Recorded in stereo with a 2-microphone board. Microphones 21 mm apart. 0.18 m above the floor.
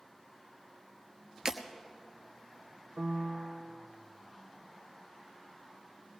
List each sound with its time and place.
1.4 s breaking glass: 30° right (ahead or behind), 1.0 m
3.0 s a piano: 65° right (ahead or behind), 0.7 m